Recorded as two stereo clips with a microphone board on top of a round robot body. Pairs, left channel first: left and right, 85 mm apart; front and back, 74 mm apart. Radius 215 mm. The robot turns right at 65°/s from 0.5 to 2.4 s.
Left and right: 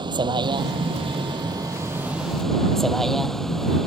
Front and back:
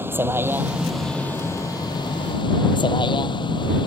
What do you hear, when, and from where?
0.0 s a vehicle: 120° right; by 3.9 s 5° left